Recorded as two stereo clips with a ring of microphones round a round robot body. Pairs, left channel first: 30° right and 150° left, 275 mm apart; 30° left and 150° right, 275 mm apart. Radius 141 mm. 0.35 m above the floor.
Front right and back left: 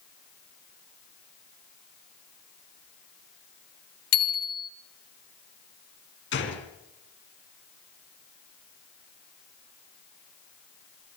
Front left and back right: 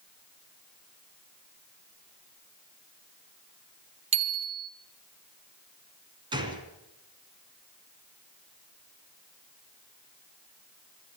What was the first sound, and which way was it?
A bicycle bell, 85° right.